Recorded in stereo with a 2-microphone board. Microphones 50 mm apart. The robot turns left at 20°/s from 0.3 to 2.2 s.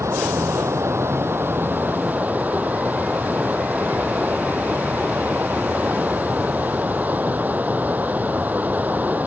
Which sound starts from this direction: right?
Running water, at 0.0 s.